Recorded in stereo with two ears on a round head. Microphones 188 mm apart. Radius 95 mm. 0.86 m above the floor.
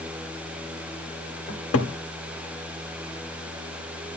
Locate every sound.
1.5 s a cupboard door: 80° left, 2 m